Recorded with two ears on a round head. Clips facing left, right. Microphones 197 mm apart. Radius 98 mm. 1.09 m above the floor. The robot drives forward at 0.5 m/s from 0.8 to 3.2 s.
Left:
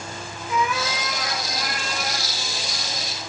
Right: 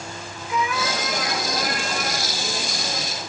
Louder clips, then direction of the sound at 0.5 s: Even; 35° left (ahead or behind).